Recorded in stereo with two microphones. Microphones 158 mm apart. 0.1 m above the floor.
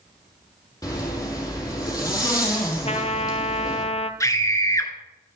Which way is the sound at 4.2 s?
20° left (ahead or behind).